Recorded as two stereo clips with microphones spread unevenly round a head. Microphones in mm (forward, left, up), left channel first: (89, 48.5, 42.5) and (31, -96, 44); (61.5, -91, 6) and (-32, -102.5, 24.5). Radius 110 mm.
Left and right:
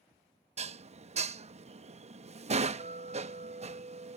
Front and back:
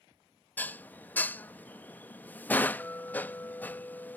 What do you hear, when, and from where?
0.6 s dishes clattering: 70° right